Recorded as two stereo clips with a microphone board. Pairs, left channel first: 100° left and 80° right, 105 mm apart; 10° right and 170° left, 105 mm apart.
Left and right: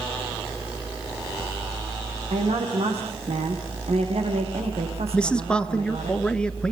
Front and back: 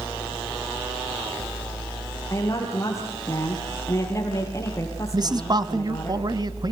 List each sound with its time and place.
2.3 s a woman speaking: 70° right, 6.5 m
5.1 s a man speaking: 175° left, 1.4 m